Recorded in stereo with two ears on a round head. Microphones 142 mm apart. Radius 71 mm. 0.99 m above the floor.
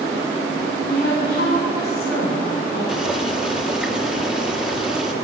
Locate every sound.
0.8 s a woman speaking: 60° left (ahead or behind), 7.5 m; by 2.8 s 80° left, 8 m
2.9 s boiling: 5° right (ahead or behind), 1.4 m